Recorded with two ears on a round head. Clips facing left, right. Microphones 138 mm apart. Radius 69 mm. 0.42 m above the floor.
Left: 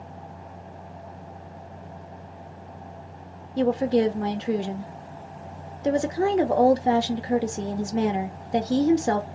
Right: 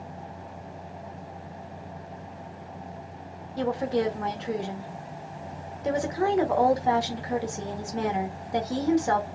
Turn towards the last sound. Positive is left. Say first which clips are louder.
# left 5 dB
turn(degrees=30)  # may be behind; listen again after turning